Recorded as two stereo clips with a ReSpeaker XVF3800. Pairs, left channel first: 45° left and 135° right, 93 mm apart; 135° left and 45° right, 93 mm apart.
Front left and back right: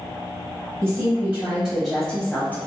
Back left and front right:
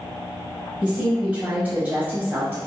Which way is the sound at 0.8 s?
120° right.